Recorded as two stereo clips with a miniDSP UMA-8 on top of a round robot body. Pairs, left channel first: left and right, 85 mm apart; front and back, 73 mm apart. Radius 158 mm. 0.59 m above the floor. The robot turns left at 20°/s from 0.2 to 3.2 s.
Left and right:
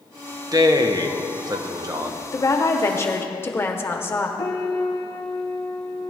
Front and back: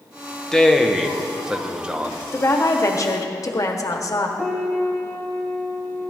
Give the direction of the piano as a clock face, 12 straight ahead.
8 o'clock.